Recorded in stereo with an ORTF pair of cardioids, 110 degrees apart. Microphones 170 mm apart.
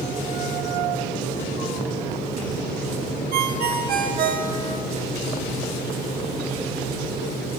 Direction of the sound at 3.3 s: 60° right.